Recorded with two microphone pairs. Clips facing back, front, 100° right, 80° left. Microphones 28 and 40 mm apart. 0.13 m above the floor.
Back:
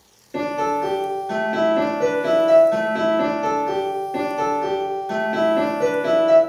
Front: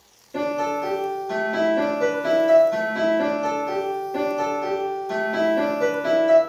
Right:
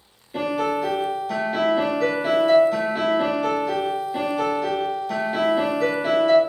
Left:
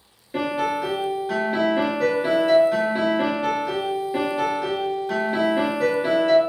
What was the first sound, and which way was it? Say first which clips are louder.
A piano: back 2 dB, even; 130° left.